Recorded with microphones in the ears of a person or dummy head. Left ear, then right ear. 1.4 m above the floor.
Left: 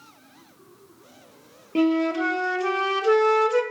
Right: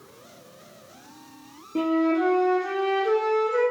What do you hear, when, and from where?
1.8 s a flute: 65° left (ahead or behind), 0.5 m